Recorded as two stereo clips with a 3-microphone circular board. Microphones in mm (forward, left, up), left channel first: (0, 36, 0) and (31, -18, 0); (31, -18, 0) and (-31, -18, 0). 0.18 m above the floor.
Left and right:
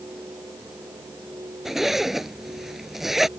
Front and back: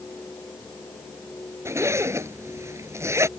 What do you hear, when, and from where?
1.6 s a zipper: 145° right